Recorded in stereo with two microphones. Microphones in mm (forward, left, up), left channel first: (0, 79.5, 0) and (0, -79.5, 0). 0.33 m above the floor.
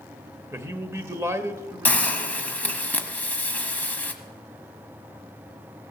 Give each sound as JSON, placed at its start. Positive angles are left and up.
{"t": 0.5, "sound": "a man speaking", "side_deg": -15, "distance_m": 0.9}
{"t": 1.9, "sound": "a hiss", "side_deg": 10, "distance_m": 1.0}